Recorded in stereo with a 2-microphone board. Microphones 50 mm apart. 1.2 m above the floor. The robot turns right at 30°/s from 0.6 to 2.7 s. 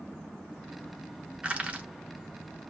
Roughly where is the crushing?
Right.